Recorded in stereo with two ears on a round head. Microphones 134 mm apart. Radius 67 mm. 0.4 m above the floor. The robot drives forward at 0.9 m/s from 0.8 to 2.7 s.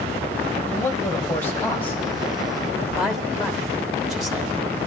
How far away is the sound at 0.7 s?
About 1.6 m.